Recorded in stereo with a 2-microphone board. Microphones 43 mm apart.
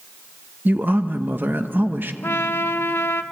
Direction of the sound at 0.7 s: 50° right (ahead or behind).